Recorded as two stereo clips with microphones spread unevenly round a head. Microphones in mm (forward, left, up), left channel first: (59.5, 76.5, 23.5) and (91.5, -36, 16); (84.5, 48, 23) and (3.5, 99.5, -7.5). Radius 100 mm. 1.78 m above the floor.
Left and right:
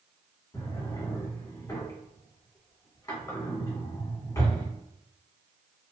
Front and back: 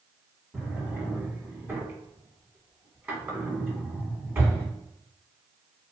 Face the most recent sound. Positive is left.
turn(degrees=65)